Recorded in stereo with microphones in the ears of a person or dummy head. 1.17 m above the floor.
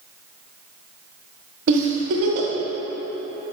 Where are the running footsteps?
I don't hear running footsteps.